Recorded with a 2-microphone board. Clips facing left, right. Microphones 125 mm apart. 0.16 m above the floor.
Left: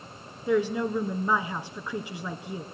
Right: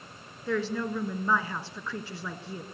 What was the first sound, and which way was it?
A woman speaking, 15° left (ahead or behind).